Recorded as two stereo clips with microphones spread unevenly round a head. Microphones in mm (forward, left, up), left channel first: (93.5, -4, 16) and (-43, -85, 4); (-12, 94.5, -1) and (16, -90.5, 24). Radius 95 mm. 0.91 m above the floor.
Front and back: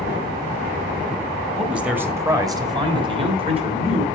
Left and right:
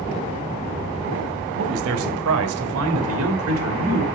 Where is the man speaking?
60° right, 1.3 m; by 4.0 s 100° right, 2.5 m.